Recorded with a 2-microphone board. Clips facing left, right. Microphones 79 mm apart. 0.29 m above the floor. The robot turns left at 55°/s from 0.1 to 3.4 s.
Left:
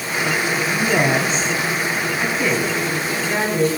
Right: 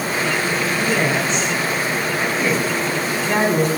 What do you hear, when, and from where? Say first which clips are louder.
0.7 s a woman speaking: left 3 dB; 60° left (ahead or behind), 2.5 m; by 3.7 s 45° right (ahead or behind), 2.5 m